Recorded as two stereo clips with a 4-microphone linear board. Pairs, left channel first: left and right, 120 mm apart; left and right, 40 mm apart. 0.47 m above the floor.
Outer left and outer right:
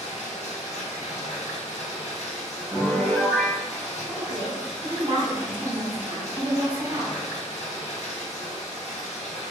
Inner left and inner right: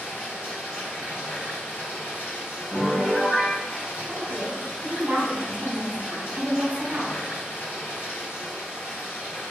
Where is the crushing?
No crushing in this recording.